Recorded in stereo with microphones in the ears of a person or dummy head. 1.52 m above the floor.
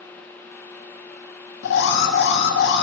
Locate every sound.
1.6 s an alarm: 70° left (ahead or behind), 0.9 m